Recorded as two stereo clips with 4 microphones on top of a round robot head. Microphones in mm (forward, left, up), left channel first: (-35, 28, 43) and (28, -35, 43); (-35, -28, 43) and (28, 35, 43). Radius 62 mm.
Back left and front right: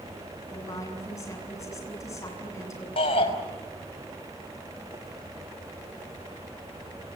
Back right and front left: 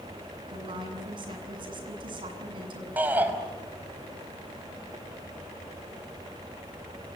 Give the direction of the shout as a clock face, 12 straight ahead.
8 o'clock.